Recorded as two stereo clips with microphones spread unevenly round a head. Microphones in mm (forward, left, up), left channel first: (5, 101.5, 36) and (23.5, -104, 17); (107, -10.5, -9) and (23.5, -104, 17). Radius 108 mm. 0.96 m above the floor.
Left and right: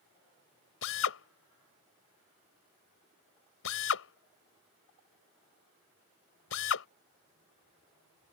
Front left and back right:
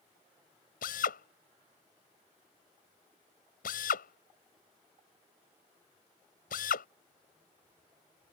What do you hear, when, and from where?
0.8 s a drill: 75° left